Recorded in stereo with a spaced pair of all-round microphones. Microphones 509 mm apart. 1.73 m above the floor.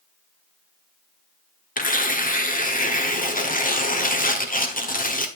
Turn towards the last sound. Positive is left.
turn(degrees=15)  # may be behind; listen again after turning